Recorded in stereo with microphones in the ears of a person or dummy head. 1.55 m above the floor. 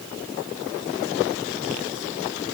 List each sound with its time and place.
Only background noise.